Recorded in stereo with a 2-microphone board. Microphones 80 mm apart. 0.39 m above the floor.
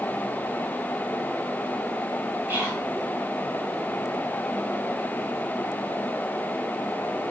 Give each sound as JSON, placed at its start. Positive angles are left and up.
{"t": 2.5, "sound": "whispering", "side_deg": -25, "distance_m": 1.4}